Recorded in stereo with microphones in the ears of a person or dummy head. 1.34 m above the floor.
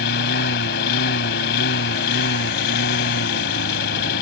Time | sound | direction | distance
0.0 | a lawn mower | 60° left (ahead or behind) | ?